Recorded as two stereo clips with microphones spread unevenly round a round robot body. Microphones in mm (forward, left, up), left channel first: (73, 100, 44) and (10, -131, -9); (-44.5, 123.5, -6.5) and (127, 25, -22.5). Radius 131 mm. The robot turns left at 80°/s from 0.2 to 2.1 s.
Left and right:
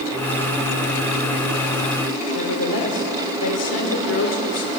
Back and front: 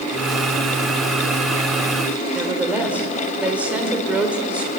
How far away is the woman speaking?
About 2.5 m.